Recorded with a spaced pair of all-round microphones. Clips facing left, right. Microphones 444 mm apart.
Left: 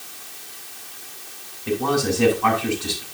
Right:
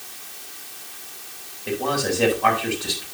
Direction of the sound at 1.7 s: 15° left (ahead or behind).